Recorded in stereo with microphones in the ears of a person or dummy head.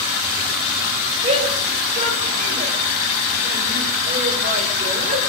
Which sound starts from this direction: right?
A shout, at 1.2 s.